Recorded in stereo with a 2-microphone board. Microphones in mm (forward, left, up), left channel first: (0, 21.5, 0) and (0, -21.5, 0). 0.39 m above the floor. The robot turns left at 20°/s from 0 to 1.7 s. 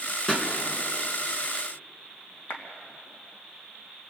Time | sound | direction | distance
0.3 | a pop | 20° left (ahead or behind) | 4 m
2.5 | a clap | 70° left (ahead or behind) | 3 m